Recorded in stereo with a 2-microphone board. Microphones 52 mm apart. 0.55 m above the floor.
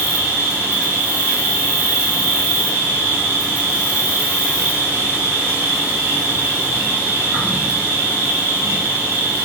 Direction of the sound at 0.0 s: 70° right (ahead or behind).